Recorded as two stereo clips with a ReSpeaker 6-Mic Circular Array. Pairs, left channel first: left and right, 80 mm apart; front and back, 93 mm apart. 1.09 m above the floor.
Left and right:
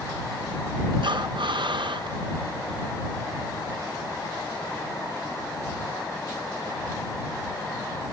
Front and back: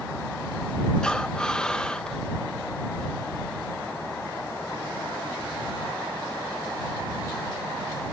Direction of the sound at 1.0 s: 80° right.